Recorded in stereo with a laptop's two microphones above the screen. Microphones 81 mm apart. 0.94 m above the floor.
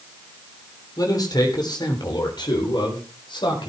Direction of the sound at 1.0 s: 50° left (ahead or behind).